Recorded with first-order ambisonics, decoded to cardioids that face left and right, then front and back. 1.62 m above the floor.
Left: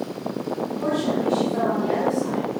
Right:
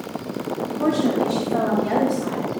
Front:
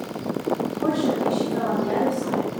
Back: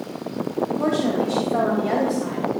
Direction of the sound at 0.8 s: 150° right.